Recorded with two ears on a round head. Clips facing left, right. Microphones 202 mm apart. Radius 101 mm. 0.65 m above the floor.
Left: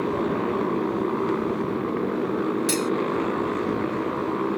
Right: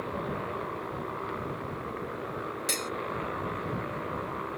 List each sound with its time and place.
0.0 s a motorcycle: 65° left (ahead or behind)
2.7 s cutlery clinking: 10° left (ahead or behind)